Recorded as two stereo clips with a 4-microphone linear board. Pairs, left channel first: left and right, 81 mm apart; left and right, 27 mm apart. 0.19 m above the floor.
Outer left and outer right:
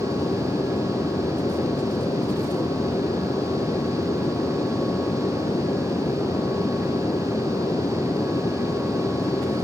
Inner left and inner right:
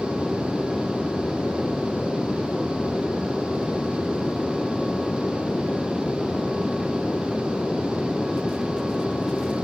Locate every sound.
0.0 s an aircraft: 60° left (ahead or behind)